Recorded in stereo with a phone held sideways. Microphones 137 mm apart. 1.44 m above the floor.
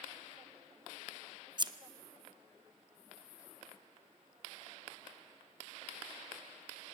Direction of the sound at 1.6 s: 35° right (ahead or behind).